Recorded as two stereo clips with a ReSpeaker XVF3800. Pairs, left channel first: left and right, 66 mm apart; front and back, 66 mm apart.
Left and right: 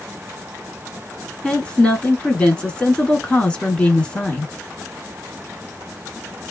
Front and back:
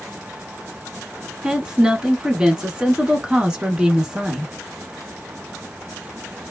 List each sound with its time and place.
1.4 s a woman speaking: 130° left, 1.1 m